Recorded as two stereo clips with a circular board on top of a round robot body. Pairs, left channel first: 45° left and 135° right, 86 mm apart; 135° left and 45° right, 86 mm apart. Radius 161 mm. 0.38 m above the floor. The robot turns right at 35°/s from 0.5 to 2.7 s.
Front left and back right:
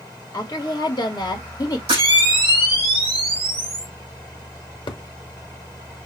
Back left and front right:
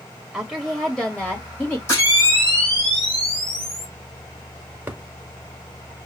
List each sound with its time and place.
0.3 s a woman speaking: 25° left, 1.4 m; by 1.8 s 70° left, 1.4 m
1.9 s a camera shutter: 165° right, 4 m; by 3.9 s 135° right, 4 m
4.9 s a thud: 25° left, 1.1 m